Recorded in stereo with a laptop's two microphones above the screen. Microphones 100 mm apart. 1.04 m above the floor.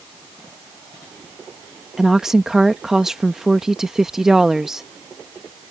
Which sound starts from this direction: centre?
A woman speaking, at 2.0 s.